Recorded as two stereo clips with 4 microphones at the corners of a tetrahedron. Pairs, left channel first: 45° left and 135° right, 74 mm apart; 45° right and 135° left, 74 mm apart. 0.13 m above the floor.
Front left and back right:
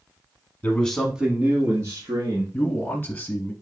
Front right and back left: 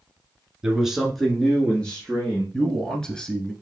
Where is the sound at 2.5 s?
20° left, 1.1 m.